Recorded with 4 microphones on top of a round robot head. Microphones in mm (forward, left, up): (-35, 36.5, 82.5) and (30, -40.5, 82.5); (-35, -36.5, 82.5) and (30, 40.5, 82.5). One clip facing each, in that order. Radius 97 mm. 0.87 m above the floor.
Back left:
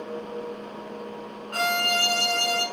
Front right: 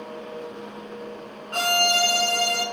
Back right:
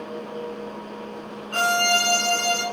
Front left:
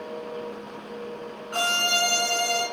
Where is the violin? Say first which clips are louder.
Front right 3 dB, back right 5 dB; 10° right, 0.8 m.